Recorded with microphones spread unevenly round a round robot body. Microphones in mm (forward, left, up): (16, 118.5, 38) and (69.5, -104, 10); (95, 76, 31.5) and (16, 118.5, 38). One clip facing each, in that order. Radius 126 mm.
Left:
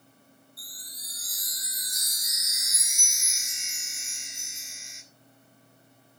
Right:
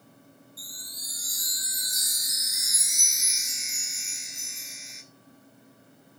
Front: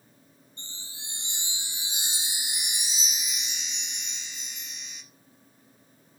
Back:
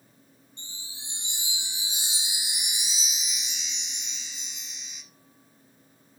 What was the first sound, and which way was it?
A chime, 15° left.